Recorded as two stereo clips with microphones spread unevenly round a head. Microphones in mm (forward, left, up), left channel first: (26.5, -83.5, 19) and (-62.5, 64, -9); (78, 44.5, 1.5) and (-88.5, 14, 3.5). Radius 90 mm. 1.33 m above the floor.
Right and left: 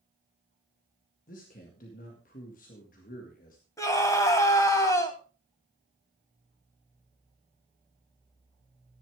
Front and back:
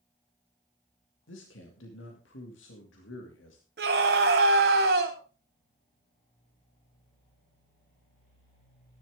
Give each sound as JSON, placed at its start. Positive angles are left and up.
{"t": 1.3, "sound": "a man speaking", "azimuth_deg": -15, "distance_m": 2.0}
{"t": 3.8, "sound": "a scream", "azimuth_deg": -135, "distance_m": 3.0}